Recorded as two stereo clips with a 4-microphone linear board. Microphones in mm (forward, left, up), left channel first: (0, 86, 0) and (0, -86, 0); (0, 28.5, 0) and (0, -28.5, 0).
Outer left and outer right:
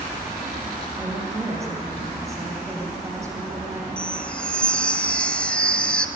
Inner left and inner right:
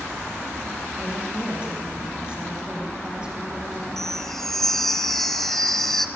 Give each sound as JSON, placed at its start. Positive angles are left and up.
{"t": 1.0, "sound": "a woman speaking", "side_deg": -20, "distance_m": 7.0}
{"t": 4.0, "sound": "a chime", "side_deg": 5, "distance_m": 1.0}